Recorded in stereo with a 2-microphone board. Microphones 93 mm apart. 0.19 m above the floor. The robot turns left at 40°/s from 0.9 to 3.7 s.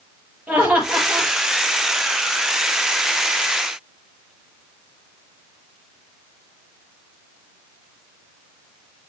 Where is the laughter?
10° right (ahead or behind), 5.5 m; by 1.3 s 25° right (ahead or behind), 5.5 m.